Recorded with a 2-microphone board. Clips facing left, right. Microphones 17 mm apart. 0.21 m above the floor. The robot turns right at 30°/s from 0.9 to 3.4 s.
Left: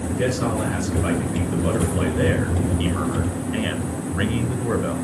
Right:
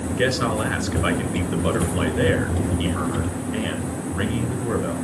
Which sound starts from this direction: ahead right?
A man speaking, at 0.1 s.